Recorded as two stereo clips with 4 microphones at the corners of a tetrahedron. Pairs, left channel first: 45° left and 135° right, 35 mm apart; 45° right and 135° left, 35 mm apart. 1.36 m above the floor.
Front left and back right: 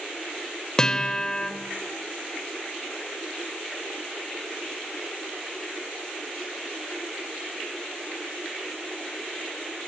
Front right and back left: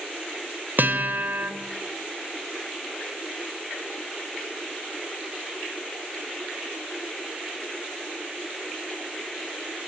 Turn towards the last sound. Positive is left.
turn(degrees=115)